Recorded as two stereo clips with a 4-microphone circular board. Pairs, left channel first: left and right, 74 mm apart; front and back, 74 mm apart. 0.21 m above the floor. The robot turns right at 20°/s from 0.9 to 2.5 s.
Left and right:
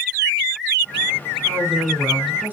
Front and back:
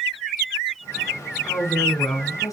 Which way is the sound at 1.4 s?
50° right.